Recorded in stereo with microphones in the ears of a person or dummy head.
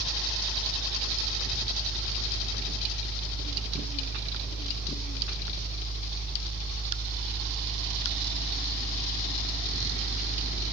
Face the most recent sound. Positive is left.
turn(degrees=-40)  # may be behind; listen again after turning